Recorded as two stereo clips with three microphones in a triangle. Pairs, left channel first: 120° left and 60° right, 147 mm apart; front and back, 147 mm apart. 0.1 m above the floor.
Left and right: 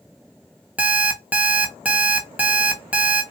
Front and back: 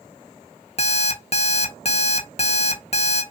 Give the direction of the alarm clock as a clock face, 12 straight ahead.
11 o'clock.